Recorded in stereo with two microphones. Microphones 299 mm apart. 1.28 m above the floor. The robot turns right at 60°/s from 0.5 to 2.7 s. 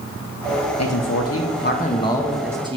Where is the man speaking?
85° left, 0.8 m; by 2.8 s 160° right, 0.8 m.